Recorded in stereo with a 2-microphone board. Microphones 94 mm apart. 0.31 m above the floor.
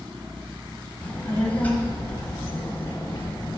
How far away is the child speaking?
About 1.4 m.